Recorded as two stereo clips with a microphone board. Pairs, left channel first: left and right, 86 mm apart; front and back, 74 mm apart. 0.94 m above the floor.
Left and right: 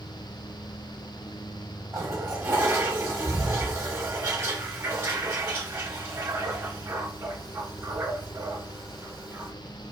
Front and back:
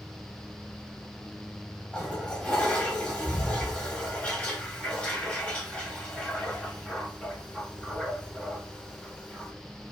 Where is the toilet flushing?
60° right, 0.9 m.